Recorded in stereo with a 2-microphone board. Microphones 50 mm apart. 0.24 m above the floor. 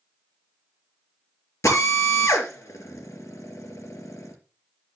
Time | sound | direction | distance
1.6 | a drill | 75° left (ahead or behind) | 3.5 m